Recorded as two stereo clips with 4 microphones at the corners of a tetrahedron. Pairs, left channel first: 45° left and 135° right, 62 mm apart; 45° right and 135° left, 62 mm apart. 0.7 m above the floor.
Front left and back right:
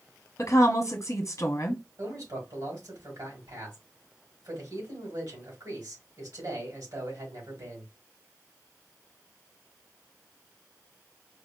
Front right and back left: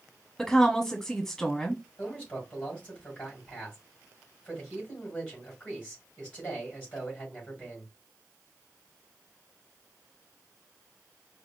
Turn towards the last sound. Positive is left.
turn(degrees=-115)